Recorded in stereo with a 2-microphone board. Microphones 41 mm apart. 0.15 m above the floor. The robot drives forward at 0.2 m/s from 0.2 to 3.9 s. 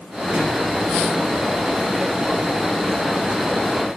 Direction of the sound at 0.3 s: 40° right (ahead or behind).